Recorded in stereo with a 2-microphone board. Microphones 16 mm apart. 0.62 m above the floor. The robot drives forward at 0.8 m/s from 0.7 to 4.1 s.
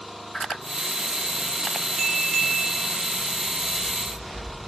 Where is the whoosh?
30° left (ahead or behind), 1.1 m.